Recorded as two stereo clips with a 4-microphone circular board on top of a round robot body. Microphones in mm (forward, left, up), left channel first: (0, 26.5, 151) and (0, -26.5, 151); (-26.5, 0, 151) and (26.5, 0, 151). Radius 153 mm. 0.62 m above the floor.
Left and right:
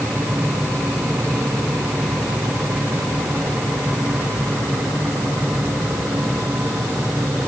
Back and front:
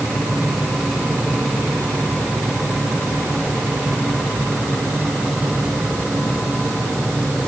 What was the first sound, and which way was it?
Only background noise.